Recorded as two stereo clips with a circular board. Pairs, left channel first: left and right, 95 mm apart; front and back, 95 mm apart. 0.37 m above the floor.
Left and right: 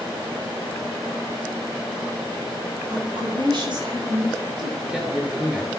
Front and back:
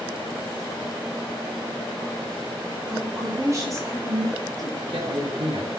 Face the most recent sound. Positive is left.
turn(degrees=-170)